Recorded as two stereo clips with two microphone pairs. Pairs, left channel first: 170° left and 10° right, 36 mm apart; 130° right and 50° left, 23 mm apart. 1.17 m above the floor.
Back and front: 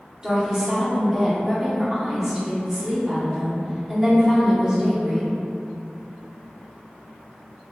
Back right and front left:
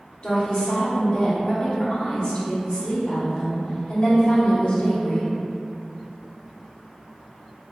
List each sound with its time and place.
0.2 s a woman speaking: 85° right, 1.6 m